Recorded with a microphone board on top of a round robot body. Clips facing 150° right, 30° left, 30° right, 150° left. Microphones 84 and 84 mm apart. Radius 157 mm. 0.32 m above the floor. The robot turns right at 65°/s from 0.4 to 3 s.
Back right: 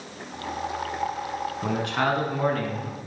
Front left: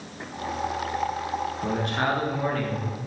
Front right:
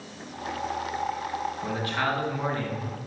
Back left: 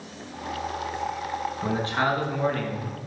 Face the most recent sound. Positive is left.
turn(degrees=-75)